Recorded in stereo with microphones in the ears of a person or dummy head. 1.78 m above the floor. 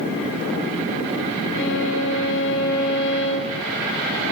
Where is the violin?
70° left (ahead or behind), 1.4 m.